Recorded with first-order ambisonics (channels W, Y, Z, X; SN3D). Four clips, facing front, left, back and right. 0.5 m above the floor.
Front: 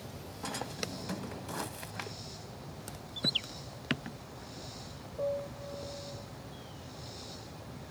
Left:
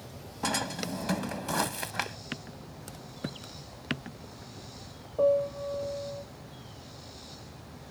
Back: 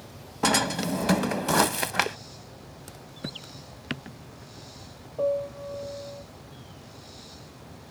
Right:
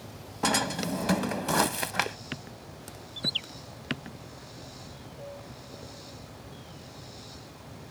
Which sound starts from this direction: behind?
A drawer, at 0.4 s.